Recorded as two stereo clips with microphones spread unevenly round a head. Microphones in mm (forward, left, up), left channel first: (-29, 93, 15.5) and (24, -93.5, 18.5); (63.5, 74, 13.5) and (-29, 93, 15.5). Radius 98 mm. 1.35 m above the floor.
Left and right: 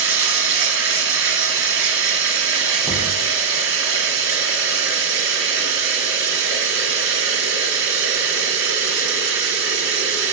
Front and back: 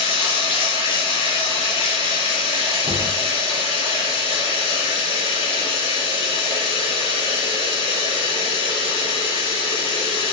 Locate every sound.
0.0 s running water: 60° right, 2.5 m
2.8 s knocking: 165° right, 1.0 m